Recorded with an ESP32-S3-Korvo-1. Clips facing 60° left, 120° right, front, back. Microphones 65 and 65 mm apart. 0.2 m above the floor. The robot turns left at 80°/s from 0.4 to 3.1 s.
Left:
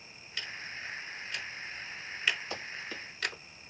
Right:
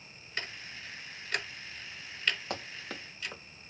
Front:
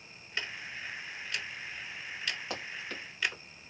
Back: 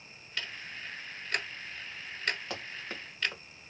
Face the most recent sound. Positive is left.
turn(degrees=-135)